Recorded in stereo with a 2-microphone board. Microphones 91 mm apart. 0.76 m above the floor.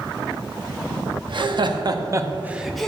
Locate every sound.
1.3 s laughter: 65° right (ahead or behind), 0.9 m; by 2.9 s 5° left (ahead or behind), 0.6 m